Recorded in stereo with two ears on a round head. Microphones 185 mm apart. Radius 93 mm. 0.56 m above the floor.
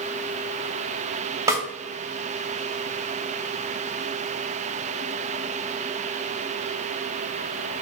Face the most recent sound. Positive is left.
turn(degrees=-15)  # may be behind; listen again after turning